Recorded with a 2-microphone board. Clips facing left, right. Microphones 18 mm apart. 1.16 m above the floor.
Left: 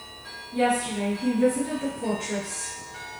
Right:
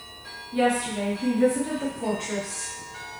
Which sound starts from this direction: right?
A woman speaking, at 0.5 s.